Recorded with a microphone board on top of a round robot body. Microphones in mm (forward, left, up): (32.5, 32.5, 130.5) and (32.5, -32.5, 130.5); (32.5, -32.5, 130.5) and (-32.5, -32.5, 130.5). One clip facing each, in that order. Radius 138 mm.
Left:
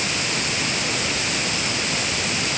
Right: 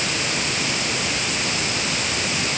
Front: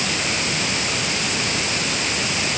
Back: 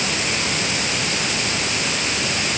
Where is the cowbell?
No cowbell in this recording.